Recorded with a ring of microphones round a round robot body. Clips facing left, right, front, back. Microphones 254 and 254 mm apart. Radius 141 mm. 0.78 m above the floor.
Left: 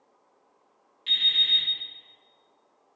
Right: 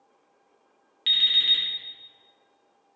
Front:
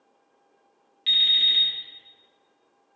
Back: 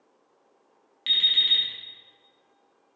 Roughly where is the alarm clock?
Right.